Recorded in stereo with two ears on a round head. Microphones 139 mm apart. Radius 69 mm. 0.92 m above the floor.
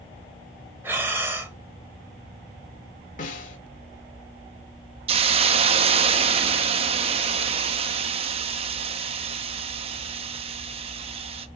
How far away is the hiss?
About 0.7 m.